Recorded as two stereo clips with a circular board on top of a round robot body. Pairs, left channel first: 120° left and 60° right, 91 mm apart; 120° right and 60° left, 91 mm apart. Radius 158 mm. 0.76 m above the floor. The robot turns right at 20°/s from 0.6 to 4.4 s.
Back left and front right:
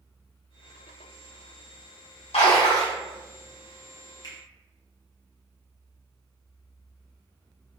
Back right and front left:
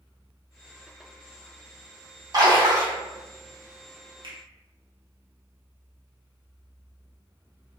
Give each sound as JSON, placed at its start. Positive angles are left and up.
{"t": 2.3, "sound": "a splash", "azimuth_deg": 110, "distance_m": 0.7}
{"t": 4.2, "sound": "a finger snap", "azimuth_deg": 80, "distance_m": 1.5}